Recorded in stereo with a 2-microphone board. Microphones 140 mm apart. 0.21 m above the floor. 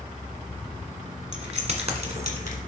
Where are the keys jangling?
50° right (ahead or behind), 1.3 m.